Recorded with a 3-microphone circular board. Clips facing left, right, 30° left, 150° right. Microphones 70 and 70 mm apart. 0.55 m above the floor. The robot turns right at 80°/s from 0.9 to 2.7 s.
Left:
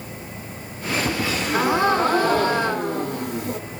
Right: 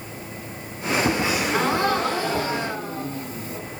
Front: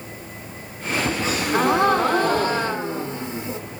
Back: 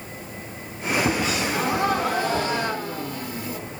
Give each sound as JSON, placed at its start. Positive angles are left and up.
{"t": 1.2, "sound": "a gasp", "azimuth_deg": -25, "distance_m": 0.7}